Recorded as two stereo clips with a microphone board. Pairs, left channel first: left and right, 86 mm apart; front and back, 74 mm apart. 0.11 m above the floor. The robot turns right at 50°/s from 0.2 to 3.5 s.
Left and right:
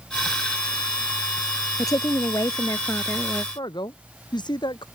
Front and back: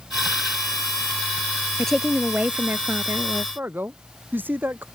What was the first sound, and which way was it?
A woman speaking, 75° left.